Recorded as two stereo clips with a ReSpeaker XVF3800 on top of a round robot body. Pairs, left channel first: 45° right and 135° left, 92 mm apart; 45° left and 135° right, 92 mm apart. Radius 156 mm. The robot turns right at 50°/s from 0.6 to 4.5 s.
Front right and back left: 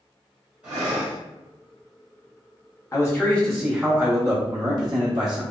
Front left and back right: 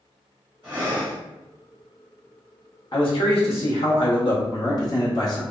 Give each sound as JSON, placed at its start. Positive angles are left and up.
{"t": 0.6, "sound": "breathing", "azimuth_deg": -160, "distance_m": 0.9}
{"t": 2.9, "sound": "a man speaking", "azimuth_deg": 10, "distance_m": 0.9}